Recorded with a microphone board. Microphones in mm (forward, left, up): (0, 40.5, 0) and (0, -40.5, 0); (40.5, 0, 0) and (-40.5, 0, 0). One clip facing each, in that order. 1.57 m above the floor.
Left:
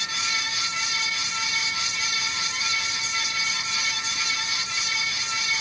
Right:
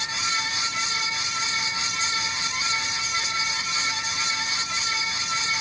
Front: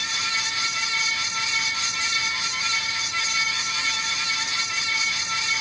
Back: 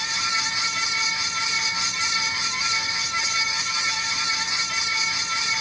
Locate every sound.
Only background noise.